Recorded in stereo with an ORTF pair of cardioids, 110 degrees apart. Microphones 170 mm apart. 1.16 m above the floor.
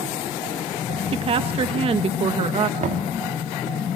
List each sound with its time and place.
1.1 s a woman speaking: 35° right, 1.6 m
2.8 s knocking: 50° right, 2 m